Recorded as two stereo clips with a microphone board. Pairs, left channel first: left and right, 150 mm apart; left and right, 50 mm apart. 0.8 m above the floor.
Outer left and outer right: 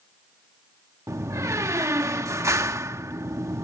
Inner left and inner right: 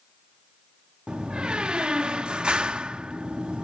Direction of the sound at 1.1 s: 20° right (ahead or behind).